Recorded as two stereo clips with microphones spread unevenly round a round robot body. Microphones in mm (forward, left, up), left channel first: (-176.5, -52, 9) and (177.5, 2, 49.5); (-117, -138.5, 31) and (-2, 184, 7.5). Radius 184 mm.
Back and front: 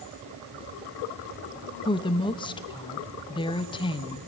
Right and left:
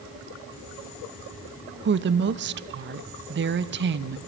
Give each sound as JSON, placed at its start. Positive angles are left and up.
{"t": 1.9, "sound": "a woman speaking", "azimuth_deg": 120, "distance_m": 0.7}